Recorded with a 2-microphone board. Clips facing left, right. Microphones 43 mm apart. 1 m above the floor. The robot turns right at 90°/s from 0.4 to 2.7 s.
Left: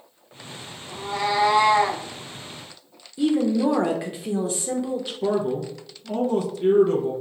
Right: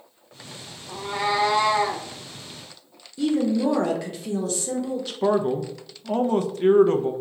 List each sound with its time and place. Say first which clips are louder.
0.9 s a cat meowing: even; 45° right, 0.6 m; by 2.0 s 60° left, 0.6 m
3.2 s a woman speaking: left 1 dB; 20° left (ahead or behind), 0.6 m
5.2 s a man speaking: right 3 dB; 45° right (ahead or behind), 0.5 m